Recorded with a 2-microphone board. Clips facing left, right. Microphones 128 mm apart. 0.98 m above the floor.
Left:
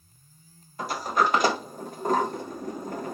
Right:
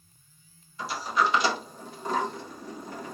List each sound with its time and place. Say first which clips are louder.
0.8 s a sliding door: left 2 dB; 50° left (ahead or behind), 0.9 m